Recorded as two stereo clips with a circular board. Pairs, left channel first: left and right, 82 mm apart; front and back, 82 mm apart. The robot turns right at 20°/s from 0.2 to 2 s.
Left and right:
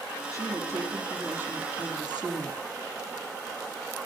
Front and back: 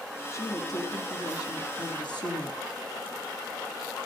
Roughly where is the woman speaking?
Ahead right.